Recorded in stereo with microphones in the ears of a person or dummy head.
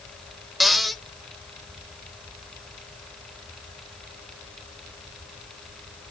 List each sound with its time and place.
0.6 s a cupboard door: centre (ahead or behind), 0.8 m